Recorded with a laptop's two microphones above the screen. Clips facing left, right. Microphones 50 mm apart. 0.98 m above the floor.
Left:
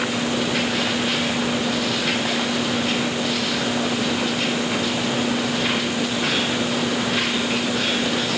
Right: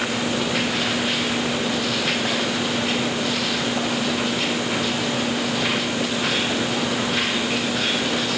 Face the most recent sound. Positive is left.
No sound to turn to.